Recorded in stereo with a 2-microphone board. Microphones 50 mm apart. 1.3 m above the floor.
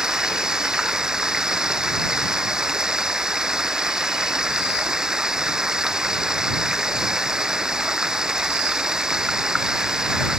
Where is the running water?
10° right (ahead or behind).